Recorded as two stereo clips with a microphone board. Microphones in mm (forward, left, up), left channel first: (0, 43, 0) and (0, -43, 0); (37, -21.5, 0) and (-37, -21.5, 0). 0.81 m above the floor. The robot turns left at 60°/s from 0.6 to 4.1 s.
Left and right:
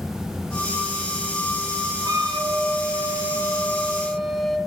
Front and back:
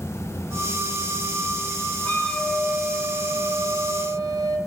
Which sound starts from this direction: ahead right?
A flute, at 2.0 s.